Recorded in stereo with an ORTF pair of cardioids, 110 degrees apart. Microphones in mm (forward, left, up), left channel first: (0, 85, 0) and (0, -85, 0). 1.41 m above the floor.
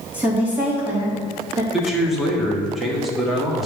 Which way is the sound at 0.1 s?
10° right.